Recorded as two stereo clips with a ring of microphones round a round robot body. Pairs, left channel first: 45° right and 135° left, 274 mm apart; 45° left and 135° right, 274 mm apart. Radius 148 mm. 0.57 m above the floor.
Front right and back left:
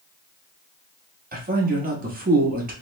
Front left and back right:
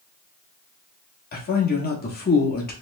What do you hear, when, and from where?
1.3 s a man speaking: 90° left, 1.2 m